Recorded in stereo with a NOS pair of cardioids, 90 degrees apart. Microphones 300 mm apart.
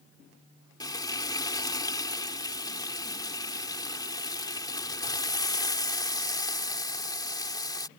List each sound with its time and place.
0.8 s frying: 15° left